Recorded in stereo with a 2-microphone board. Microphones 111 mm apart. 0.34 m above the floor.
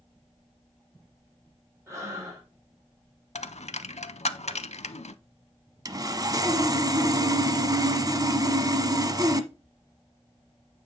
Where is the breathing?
25° right (ahead or behind), 5 m.